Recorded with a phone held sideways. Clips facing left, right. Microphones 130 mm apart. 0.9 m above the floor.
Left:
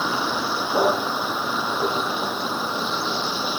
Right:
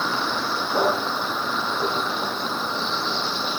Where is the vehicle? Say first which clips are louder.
Left 1 dB; 10° left (ahead or behind).